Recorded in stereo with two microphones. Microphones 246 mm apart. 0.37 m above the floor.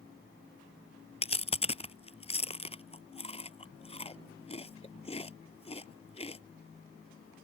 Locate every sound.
1.2 s chewing: 25° left (ahead or behind)